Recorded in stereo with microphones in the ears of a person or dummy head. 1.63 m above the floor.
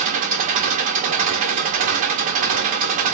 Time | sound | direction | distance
0.0 | an engine running | 40° right (ahead or behind) | 0.7 m